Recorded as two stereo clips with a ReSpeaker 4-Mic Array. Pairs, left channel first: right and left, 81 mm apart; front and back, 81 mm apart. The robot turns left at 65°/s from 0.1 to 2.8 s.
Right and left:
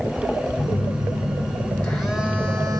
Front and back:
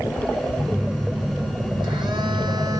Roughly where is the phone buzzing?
Right.